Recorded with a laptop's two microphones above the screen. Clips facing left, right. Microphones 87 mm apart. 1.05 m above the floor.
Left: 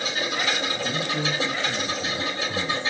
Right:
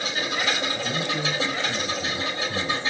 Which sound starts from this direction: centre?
A man speaking, at 0.8 s.